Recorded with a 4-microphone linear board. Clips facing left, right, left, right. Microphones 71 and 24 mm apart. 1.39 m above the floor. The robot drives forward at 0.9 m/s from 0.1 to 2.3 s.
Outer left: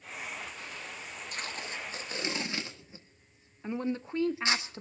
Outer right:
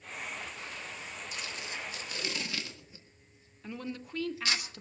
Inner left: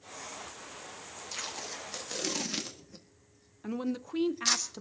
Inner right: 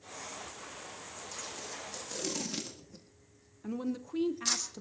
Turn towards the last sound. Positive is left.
turn(degrees=25)  # may be behind; listen again after turning